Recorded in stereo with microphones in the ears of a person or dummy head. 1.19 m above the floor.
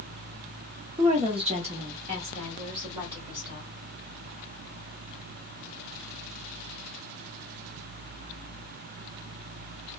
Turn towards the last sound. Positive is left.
turn(degrees=-25)  # may be behind; listen again after turning